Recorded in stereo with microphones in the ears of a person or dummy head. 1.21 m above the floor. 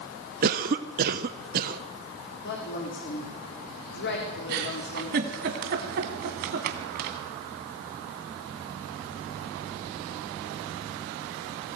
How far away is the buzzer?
I don't hear a buzzer.